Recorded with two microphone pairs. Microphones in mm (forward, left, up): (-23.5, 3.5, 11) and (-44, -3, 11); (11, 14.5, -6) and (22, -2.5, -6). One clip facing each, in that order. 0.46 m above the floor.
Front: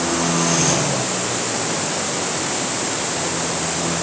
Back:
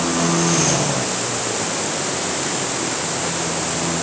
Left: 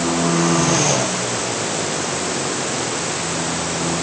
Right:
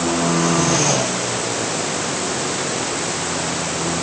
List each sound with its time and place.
Only background noise.